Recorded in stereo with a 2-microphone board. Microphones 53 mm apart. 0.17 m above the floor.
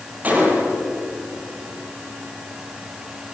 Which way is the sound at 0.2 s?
30° right (ahead or behind).